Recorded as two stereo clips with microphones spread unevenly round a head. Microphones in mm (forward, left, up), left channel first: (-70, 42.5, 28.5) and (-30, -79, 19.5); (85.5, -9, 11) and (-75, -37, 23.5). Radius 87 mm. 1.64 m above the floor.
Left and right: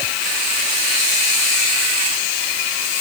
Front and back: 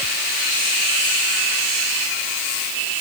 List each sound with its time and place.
Only background noise.